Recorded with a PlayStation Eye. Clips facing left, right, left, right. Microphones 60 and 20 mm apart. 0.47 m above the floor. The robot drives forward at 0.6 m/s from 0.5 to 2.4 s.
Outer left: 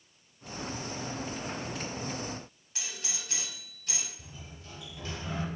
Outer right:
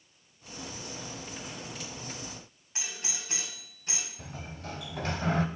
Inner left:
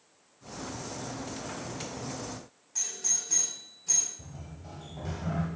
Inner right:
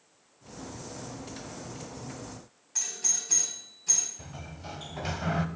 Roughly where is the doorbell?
Right.